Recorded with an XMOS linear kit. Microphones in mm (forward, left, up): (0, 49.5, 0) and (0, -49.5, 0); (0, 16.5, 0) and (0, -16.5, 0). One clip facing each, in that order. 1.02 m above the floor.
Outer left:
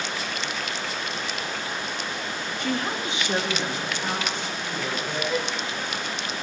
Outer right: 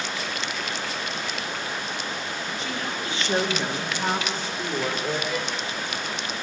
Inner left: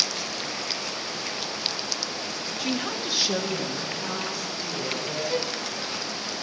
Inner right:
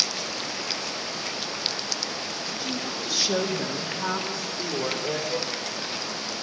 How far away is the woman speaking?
About 1.1 m.